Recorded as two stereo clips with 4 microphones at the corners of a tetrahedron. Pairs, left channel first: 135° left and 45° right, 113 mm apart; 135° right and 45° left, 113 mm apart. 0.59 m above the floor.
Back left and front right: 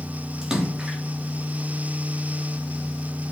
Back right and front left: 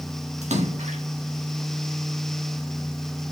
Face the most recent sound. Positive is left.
turn(degrees=40)